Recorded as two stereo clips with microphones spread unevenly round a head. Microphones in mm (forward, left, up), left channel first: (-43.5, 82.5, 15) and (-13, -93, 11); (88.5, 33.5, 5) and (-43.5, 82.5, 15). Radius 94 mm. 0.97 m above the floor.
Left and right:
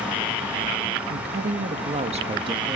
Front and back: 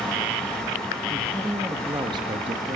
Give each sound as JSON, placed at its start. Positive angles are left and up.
{"t": 1.1, "sound": "a woman speaking", "azimuth_deg": -110, "distance_m": 1.5}